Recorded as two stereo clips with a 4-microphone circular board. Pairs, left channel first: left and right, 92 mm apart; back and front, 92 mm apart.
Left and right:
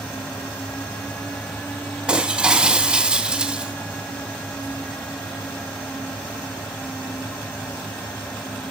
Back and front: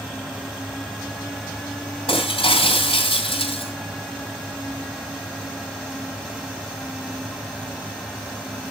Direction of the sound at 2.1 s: 170° right.